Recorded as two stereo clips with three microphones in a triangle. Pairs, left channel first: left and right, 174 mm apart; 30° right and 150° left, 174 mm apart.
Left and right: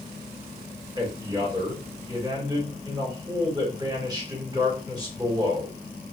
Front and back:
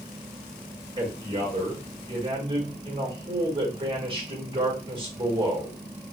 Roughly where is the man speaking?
Behind right.